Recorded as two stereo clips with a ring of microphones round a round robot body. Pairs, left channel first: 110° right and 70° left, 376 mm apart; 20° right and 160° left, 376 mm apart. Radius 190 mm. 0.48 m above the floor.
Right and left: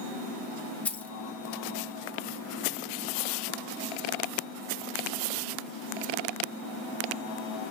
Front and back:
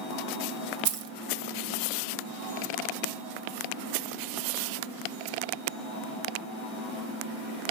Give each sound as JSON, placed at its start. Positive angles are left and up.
{"t": 0.8, "sound": "keys jangling", "azimuth_deg": 165, "distance_m": 0.5}